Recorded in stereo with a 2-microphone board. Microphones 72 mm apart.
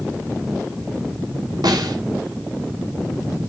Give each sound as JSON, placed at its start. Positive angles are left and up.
{"t": 1.6, "sound": "a snare drum", "side_deg": -70, "distance_m": 2.0}